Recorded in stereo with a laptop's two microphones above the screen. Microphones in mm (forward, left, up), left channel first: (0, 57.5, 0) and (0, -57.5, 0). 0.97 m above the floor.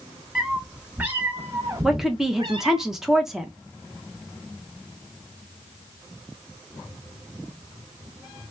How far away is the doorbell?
I don't hear a doorbell.